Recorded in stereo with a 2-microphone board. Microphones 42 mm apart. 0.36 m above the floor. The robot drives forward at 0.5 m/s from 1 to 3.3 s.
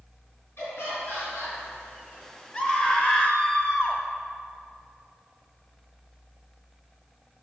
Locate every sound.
0.6 s laughter: 70° left (ahead or behind), 3 m; by 1.6 s 65° left (ahead or behind), 3 m
2.5 s a scream: 25° left (ahead or behind), 1.4 m